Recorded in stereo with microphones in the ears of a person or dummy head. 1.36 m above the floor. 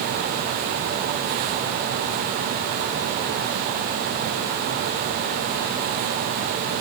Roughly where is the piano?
No piano in this recording.